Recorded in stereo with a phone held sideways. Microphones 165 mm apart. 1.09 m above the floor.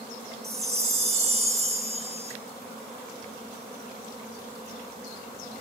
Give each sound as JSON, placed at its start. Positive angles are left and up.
{"t": 0.4, "sound": "a chime", "side_deg": -40, "distance_m": 3.5}